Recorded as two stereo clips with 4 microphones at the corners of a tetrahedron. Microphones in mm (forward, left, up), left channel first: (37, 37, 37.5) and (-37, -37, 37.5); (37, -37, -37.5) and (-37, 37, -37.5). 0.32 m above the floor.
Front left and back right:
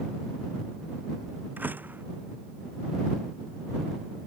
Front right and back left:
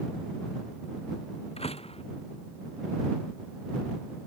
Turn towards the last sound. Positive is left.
turn(degrees=-60)